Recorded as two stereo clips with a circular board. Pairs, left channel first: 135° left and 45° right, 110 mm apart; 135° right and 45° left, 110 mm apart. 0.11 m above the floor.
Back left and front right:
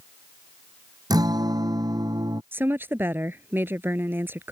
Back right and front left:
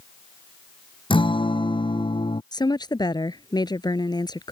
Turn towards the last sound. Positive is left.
turn(degrees=-110)